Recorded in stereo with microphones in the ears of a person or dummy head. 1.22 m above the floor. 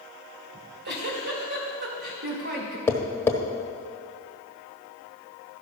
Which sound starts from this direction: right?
A giggle, at 0.5 s.